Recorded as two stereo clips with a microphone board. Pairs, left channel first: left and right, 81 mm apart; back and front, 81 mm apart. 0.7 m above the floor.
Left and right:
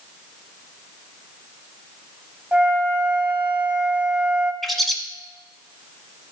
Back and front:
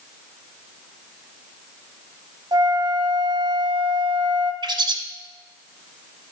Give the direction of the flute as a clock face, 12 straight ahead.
12 o'clock.